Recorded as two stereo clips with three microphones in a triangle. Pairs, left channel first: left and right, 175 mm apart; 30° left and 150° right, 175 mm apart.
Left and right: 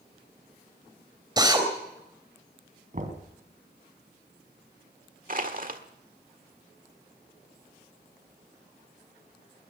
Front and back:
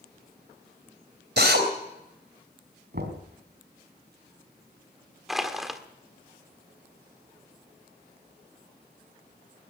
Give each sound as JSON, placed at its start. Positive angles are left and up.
{"t": 1.4, "sound": "a drill", "azimuth_deg": -155, "distance_m": 3.5}
{"t": 2.9, "sound": "knocking", "azimuth_deg": -130, "distance_m": 3.5}
{"t": 5.3, "sound": "crushing", "azimuth_deg": -60, "distance_m": 1.5}